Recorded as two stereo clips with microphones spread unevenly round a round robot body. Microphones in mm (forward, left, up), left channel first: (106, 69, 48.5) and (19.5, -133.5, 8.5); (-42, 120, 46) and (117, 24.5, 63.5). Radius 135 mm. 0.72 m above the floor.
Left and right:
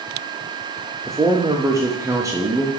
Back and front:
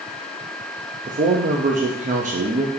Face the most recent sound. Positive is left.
turn(degrees=-60)